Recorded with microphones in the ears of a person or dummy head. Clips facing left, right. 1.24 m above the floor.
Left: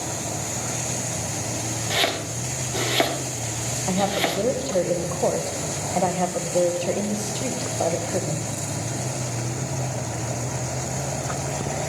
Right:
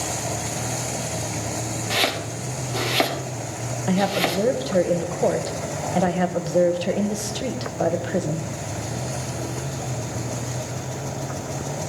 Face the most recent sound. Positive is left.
turn(degrees=-15)  # may be behind; listen again after turning